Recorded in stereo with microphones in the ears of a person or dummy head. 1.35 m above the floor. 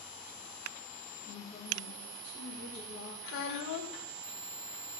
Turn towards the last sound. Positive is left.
turn(degrees=70)  # may be behind; listen again after turning